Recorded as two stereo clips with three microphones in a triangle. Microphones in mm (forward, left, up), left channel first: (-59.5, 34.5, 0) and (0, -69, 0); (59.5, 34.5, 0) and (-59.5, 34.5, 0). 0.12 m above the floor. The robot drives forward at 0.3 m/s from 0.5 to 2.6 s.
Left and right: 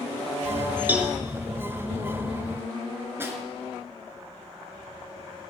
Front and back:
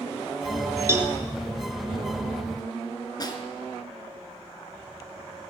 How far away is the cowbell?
About 1.7 m.